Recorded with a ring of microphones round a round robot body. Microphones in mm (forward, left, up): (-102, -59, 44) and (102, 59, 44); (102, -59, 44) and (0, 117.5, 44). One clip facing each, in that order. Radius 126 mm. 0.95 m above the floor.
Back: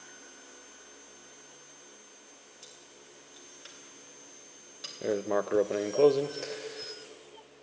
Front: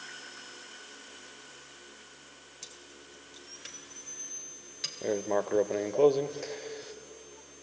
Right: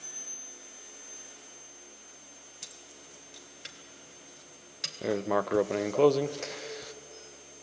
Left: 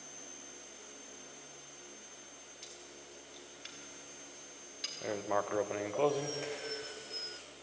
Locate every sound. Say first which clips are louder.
2.6 s keys jangling: front 4 dB, left 2 dB; 30° right, 2.5 m
5.0 s writing: even, right 7 dB; 70° right, 0.6 m